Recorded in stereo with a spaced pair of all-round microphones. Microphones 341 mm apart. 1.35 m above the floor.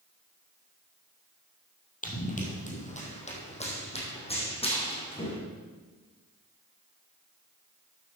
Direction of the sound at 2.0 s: 25° left (ahead or behind).